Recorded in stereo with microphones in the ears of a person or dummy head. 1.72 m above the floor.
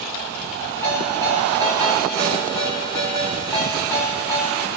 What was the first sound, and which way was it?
A ringtone, 15° left (ahead or behind).